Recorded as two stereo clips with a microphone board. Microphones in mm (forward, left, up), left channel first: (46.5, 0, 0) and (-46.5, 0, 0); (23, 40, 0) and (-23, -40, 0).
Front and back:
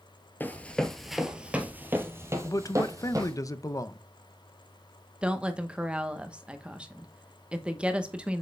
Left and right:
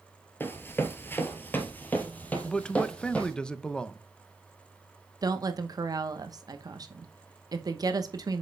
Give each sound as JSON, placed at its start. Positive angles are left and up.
{"t": 0.4, "sound": "running footsteps", "azimuth_deg": 35, "distance_m": 1.0}
{"t": 2.4, "sound": "a man speaking", "azimuth_deg": -15, "distance_m": 0.5}
{"t": 5.2, "sound": "a woman speaking", "azimuth_deg": -105, "distance_m": 0.8}